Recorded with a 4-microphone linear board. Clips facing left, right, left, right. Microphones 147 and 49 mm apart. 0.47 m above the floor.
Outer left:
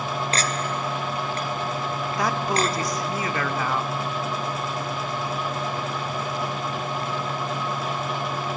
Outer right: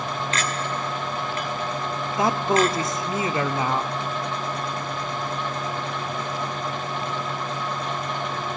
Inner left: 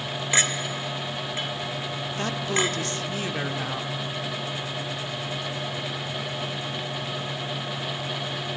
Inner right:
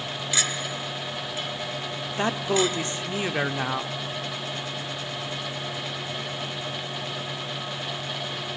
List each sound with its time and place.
0.3 s a clink: 40° left (ahead or behind), 1.3 m
2.2 s a man speaking: 25° right (ahead or behind), 0.7 m